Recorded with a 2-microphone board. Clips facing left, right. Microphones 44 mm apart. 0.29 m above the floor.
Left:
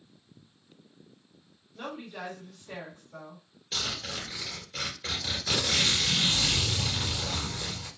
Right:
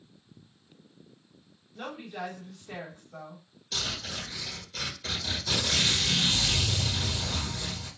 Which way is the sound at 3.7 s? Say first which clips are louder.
Even; 25° left (ahead or behind).